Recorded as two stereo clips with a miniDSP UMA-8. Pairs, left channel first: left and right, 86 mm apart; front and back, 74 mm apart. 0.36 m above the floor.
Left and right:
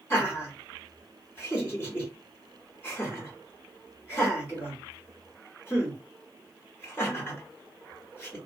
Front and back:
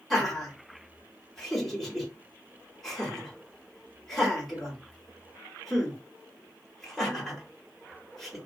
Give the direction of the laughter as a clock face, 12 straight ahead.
9 o'clock.